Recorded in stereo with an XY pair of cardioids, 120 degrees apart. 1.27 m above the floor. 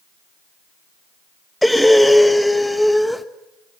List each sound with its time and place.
1.6 s breathing: 5° left, 1.2 m